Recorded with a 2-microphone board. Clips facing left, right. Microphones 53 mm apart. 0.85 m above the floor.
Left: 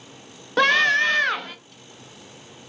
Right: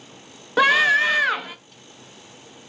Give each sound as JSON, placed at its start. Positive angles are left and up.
{"t": 0.6, "sound": "a scream", "side_deg": -5, "distance_m": 0.5}